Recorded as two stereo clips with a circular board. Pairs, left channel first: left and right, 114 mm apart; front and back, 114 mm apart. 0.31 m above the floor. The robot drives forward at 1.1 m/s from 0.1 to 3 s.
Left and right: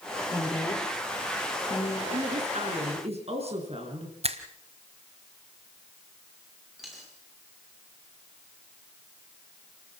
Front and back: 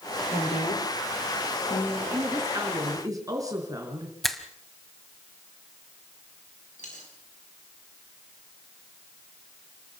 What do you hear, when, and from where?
0.3 s a woman speaking: 30° left, 6.5 m; by 2.0 s 40° left, 5 m
2.1 s a woman speaking: 110° right, 5 m; by 4.1 s 120° right, 5 m
4.2 s a finger snap: 90° right, 1.5 m
6.8 s a dropped coin: straight ahead, 6 m